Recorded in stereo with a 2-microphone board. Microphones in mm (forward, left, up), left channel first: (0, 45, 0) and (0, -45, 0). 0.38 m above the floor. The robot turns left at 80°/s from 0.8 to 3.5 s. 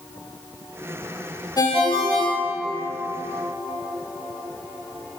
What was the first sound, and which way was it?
A ringtone, 50° left (ahead or behind).